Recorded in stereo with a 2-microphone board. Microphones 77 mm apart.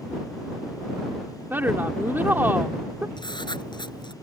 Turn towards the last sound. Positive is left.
turn(degrees=75)  # may be behind; listen again after turning